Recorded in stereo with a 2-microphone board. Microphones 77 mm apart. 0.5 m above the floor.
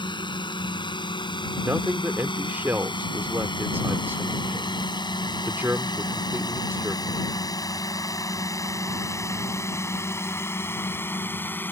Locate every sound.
0.0 s a drone: 75° left (ahead or behind); by 11.7 s 25° left (ahead or behind)
1.6 s a man speaking: 25° right (ahead or behind)